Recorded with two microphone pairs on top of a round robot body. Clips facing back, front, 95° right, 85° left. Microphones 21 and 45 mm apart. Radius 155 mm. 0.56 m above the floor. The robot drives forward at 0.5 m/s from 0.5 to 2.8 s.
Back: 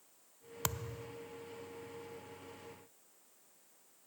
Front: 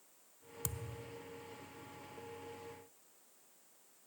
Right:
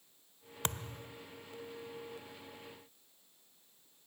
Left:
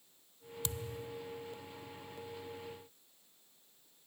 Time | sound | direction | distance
0.6 | a thud | 135° right | ?